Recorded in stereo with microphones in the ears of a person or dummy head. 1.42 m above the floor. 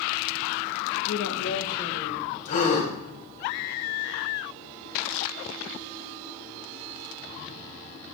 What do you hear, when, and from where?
1.1 s a woman speaking: 85° left, 0.7 m; by 2.3 s 40° left (ahead or behind), 2 m
2.5 s a gasp: 40° left (ahead or behind), 1.5 m